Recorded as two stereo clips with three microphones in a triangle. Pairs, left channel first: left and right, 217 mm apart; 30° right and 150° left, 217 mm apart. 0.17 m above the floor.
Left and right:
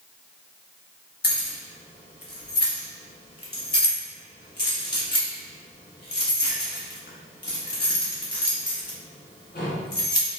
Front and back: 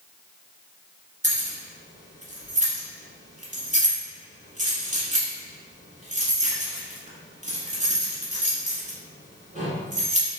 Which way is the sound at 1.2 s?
110° left.